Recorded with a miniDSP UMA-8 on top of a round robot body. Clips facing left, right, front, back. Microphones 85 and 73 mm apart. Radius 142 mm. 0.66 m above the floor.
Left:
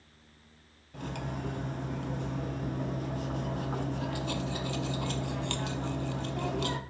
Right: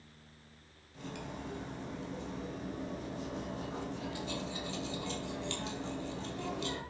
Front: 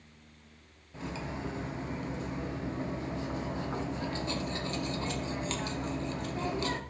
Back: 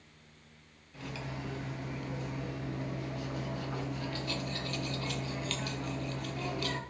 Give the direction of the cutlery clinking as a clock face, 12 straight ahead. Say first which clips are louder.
Left 5 dB, front 3 dB; 10 o'clock.